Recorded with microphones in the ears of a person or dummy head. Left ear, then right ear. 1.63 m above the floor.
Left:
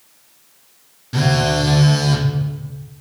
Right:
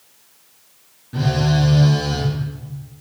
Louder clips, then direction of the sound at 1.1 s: Left 4 dB; 70° left (ahead or behind).